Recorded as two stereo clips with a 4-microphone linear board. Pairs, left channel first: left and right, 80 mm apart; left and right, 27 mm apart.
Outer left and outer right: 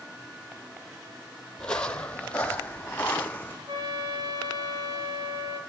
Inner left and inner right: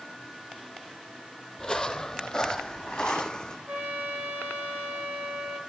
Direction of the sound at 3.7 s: 65° right (ahead or behind).